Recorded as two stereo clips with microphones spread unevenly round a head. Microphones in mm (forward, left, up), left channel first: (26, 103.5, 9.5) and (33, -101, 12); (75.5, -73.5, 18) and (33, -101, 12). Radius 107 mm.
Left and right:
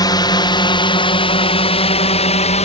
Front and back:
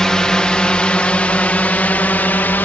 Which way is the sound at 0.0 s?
95° left.